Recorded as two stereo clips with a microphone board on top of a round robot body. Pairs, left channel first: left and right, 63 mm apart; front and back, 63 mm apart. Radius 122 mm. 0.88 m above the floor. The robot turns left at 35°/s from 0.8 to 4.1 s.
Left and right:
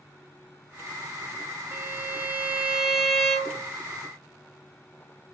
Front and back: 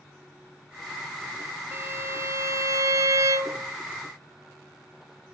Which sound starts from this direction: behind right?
A violin, at 1.7 s.